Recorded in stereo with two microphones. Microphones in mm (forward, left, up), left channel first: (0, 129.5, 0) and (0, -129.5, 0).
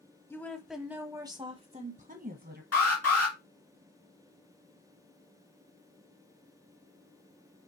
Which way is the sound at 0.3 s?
10° left (ahead or behind).